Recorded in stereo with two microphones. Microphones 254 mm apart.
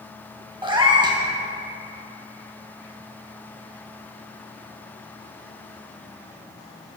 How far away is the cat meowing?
About 0.6 m.